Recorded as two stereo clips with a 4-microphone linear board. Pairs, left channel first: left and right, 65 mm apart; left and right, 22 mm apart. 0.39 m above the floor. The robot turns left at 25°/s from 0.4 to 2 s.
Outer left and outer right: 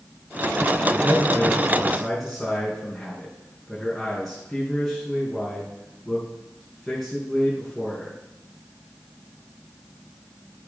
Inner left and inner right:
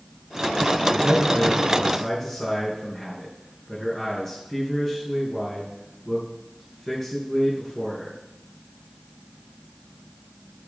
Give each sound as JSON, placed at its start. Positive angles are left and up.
{"t": 0.9, "sound": "a man speaking", "side_deg": -25, "distance_m": 4.5}